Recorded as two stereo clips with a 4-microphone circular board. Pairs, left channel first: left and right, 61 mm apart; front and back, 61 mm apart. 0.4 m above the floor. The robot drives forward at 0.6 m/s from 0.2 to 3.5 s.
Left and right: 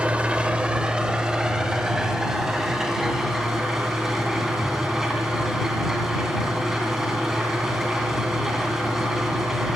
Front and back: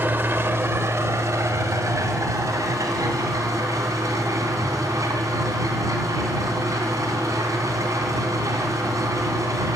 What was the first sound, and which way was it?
An engine running, 150° right.